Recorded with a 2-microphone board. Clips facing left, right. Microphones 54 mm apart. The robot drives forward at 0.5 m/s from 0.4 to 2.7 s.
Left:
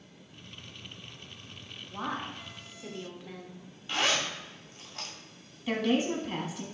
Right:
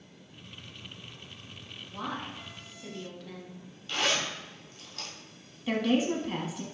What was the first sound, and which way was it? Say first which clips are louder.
A woman speaking: left 1 dB; 20° left (ahead or behind).